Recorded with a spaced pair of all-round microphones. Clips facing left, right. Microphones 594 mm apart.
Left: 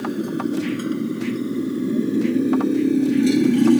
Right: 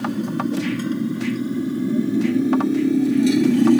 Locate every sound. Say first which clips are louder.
0.0 s a motorcycle: even; 25° right (ahead or behind); by 3.8 s 5° right (ahead or behind)